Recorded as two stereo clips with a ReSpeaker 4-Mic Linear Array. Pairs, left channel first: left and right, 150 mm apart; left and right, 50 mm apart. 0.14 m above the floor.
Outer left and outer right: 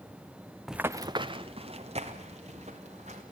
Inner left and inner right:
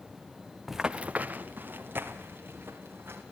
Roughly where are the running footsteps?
Centre.